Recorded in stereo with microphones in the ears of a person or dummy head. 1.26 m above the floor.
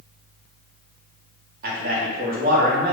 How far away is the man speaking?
About 0.8 m.